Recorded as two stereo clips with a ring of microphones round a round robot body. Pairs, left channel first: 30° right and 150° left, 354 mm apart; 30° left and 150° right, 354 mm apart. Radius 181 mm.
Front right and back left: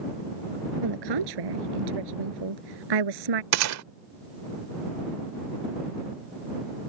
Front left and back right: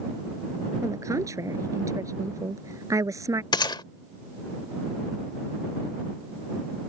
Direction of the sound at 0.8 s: 130° left.